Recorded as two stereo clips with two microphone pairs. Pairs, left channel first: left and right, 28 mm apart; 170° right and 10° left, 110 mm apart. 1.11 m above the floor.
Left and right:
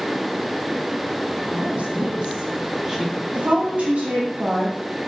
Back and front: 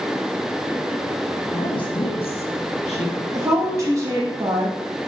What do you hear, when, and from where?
1.5 s a woman speaking: 120° right, 1.6 m; by 3.2 s 165° right, 1.3 m
3.3 s a woman speaking: 50° right, 1.2 m